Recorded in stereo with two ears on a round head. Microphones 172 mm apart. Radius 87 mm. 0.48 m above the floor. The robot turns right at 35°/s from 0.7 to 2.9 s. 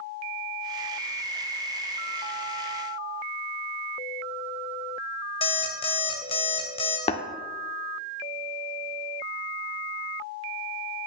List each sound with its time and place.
5.4 s an alarm clock: 30° left (ahead or behind), 0.8 m
7.1 s tapping: 30° left (ahead or behind), 0.5 m